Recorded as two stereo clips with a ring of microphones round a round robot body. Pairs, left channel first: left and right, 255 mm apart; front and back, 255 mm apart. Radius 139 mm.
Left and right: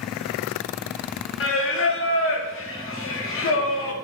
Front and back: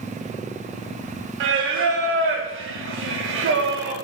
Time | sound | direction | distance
1.4 | singing | 135° left | 0.5 m